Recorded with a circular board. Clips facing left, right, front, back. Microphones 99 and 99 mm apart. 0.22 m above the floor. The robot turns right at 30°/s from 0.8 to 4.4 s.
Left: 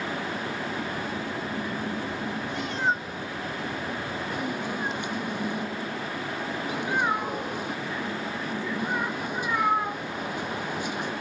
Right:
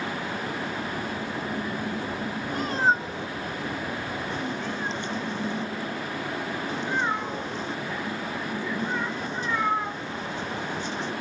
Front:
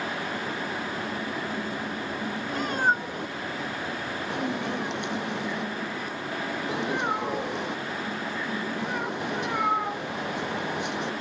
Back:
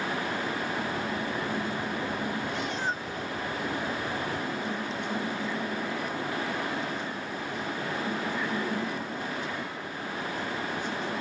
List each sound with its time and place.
2.5 s a cat meowing: 45° right; by 11.1 s 10° left